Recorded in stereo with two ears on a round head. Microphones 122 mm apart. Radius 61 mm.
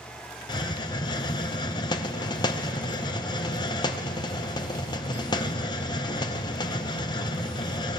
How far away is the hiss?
About 0.8 m.